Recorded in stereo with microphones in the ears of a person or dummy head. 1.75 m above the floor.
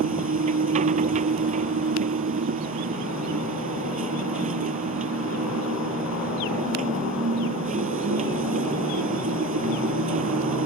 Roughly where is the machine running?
Right.